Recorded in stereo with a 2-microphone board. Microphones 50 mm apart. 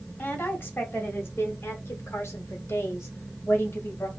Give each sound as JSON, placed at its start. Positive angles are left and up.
{"t": 0.2, "sound": "a woman speaking", "side_deg": 35, "distance_m": 1.9}